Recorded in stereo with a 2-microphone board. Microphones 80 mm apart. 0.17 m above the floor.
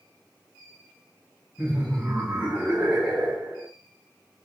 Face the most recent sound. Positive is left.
turn(degrees=-15)  # may be behind; listen again after turning